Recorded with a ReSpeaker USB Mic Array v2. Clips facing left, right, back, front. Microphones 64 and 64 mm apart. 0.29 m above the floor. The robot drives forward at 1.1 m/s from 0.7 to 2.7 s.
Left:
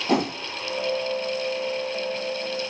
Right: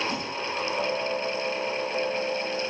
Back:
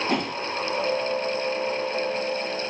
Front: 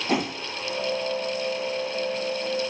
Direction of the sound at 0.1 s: 85° left.